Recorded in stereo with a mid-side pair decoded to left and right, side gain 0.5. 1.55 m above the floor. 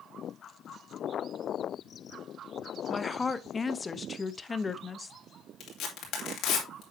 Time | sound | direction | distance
2.9 | a woman speaking | 25° left | 0.8 m
5.6 | tearing paper | 65° left | 3 m